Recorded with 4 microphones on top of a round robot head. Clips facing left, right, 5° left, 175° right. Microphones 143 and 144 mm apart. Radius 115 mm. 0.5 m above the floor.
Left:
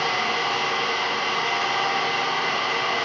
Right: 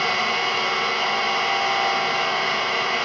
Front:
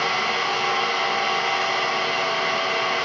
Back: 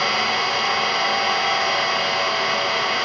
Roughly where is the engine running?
Behind left.